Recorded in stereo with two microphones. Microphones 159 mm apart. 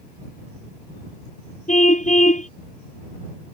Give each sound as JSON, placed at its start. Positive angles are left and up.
{"t": 1.7, "sound": "a car horn", "side_deg": 45}